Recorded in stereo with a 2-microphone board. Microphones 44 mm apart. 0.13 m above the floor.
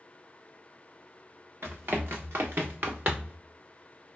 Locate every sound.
1.6 s running footsteps: 70° right (ahead or behind), 1.6 m; by 3.4 s 30° right (ahead or behind), 0.7 m